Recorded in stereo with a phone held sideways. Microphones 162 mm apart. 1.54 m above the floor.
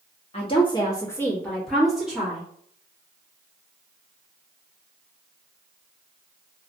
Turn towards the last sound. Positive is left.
turn(degrees=-10)  # may be behind; listen again after turning